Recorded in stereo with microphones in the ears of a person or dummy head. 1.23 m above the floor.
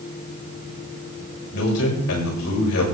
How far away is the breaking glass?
No breaking glass in this recording.